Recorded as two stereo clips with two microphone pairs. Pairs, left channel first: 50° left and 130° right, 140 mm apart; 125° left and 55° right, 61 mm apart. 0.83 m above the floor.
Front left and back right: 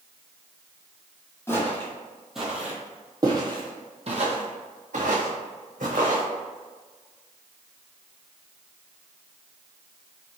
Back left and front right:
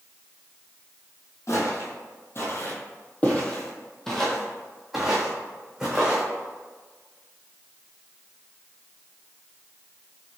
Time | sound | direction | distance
1.5 | footsteps | 115° left | 1.3 m